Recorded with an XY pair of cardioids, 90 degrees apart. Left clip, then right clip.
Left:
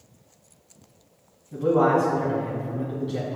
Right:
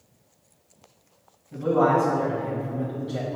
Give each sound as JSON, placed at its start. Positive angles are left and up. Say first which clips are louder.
{"t": 1.5, "sound": "a man speaking", "louder": "left 1 dB", "azimuth_deg": 10, "distance_m": 1.9}